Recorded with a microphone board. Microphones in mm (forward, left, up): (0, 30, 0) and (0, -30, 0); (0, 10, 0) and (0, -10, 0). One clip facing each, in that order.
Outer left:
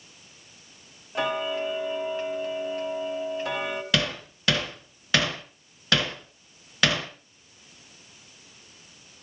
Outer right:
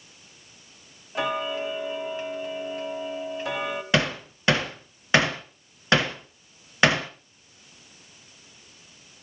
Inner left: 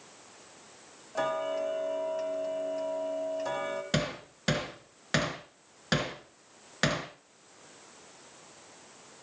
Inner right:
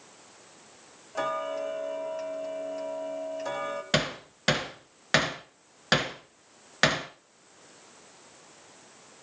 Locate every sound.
1.1 s ticking: 5° right (ahead or behind), 1.2 m
3.9 s hammering: 25° right (ahead or behind), 2 m